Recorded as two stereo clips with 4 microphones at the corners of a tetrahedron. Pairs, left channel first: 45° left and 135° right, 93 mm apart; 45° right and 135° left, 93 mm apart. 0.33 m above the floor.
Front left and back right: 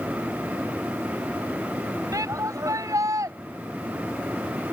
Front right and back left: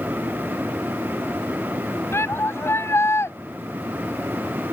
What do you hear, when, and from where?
2.1 s a shout: 95° right